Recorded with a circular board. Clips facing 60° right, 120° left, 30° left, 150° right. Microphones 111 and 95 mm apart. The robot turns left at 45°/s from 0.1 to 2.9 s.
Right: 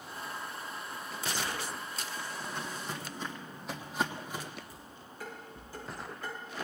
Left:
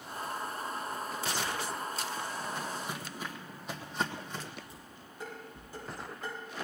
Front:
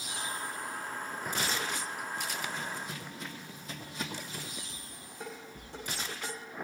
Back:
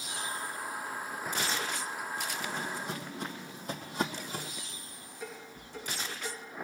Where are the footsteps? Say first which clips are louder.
Left 2 dB, back 2 dB; 150° right, 2.5 m; by 4.5 s 130° right, 2 m.